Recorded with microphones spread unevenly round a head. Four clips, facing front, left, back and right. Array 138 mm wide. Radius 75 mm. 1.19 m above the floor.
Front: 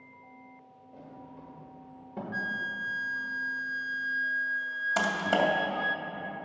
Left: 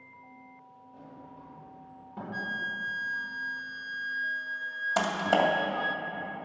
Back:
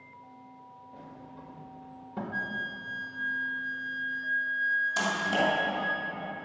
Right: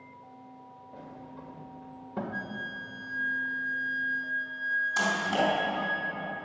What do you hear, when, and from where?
0.9 s a sliding door: 70° right, 1.8 m
2.3 s a flute: 40° left, 0.5 m
5.0 s typing on a keyboard: 60° left, 2.5 m